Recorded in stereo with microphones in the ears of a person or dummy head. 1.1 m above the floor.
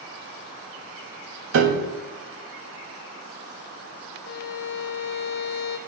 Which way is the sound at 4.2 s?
60° left (ahead or behind).